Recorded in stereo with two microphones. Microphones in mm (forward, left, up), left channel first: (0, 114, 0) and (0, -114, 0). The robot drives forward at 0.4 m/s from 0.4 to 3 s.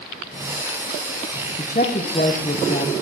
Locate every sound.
1.6 s a woman speaking: 35° left (ahead or behind), 0.8 m